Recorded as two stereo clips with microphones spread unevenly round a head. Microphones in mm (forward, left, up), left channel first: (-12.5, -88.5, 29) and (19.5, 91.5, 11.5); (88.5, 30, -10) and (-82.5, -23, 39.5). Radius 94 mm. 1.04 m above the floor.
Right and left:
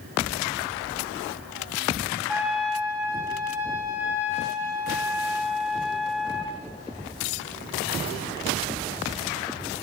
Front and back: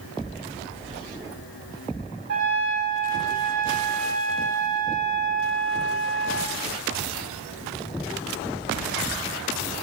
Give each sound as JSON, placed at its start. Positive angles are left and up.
{"t": 2.3, "sound": "a trumpet", "azimuth_deg": 170, "distance_m": 4.0}